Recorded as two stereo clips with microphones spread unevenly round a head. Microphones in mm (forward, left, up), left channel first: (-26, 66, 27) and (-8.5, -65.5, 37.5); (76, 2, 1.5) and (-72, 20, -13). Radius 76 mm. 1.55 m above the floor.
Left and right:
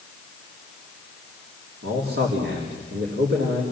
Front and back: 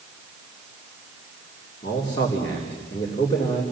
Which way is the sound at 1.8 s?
70° right.